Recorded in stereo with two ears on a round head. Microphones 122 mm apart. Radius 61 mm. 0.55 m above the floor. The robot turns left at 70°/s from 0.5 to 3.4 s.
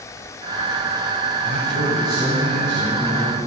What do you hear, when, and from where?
1.4 s a man speaking: 100° right, 4.5 m; by 3.4 s 120° left, 4.5 m